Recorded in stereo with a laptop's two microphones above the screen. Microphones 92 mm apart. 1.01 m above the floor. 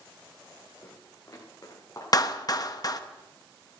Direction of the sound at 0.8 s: 35° left (ahead or behind).